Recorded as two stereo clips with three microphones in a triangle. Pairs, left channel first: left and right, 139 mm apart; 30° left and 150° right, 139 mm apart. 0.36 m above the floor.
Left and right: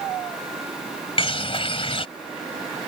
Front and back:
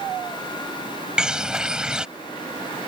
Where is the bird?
125° left.